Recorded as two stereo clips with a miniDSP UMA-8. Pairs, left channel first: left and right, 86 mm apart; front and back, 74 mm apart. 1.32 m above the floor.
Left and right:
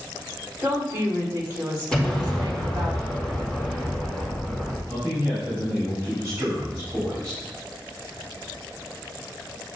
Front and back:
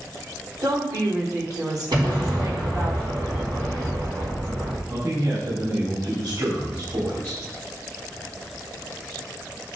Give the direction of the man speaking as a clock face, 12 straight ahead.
5 o'clock.